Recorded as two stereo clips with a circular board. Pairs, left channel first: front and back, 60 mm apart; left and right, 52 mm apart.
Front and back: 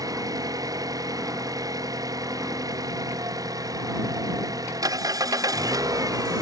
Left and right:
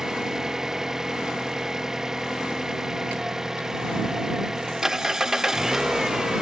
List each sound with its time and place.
0.0 s an engine running: 170° right